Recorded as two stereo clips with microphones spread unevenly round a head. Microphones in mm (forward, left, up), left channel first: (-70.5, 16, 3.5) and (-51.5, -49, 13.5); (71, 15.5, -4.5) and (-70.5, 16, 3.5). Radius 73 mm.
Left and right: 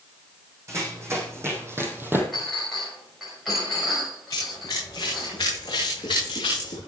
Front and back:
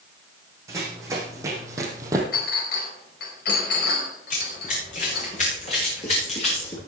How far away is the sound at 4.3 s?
About 7 m.